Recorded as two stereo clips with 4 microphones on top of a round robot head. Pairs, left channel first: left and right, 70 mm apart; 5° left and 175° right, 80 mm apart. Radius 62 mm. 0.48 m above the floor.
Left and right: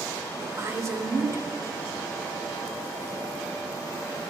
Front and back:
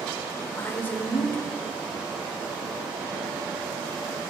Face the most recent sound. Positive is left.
turn(degrees=-55)